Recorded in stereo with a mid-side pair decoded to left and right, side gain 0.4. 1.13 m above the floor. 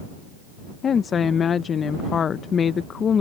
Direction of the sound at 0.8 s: 50° left.